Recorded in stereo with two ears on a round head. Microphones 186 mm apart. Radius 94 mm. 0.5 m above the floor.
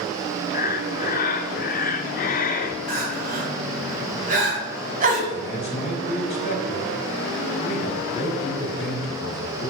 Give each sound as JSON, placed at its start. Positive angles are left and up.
{"t": 0.5, "sound": "breathing", "side_deg": 40, "distance_m": 0.7}
{"t": 2.9, "sound": "crying", "side_deg": -40, "distance_m": 1.5}
{"t": 5.3, "sound": "a man speaking", "side_deg": 30, "distance_m": 1.3}